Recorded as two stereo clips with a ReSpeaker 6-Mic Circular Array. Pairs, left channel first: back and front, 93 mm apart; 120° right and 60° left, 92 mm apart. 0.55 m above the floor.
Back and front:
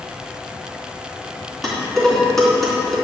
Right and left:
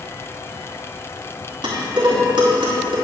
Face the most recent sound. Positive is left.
turn(degrees=95)